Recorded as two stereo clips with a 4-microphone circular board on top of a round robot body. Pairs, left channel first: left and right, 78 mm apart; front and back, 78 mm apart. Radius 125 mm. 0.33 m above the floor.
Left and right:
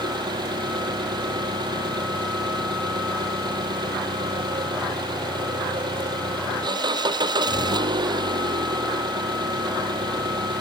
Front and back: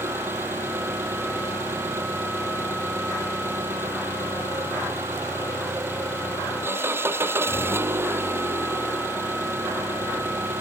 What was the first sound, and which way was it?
An engine running, 120° right.